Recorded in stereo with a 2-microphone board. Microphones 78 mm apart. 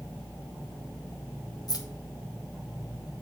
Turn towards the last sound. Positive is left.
turn(degrees=55)  # may be behind; listen again after turning